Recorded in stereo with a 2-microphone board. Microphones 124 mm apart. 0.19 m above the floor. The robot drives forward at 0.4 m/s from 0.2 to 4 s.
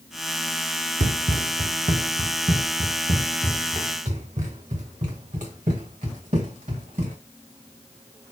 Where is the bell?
I don't hear a bell.